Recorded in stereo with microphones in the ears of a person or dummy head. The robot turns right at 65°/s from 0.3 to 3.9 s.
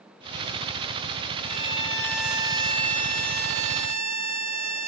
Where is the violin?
125° left, 6 m; by 4.9 s 70° right, 6 m.